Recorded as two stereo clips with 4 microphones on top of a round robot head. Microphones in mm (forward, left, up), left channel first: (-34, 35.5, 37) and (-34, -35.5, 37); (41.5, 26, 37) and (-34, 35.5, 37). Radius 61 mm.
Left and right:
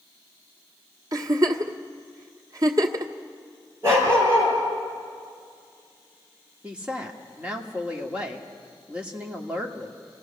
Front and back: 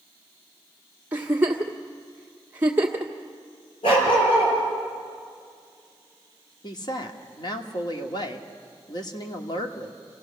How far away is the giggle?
About 1.2 m.